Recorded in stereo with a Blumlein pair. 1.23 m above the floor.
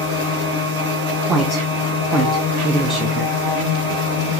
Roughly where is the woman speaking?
Ahead.